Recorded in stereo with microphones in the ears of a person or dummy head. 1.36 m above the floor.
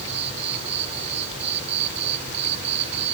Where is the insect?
40° right (ahead or behind).